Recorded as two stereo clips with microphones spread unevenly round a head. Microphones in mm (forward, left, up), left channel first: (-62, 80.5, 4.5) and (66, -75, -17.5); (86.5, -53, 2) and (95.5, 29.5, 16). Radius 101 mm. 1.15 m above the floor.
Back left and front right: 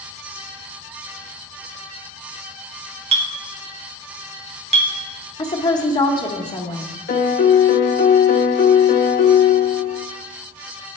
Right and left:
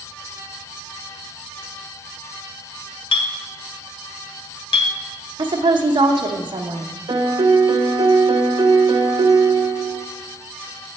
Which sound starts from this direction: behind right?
A clink, at 3.1 s.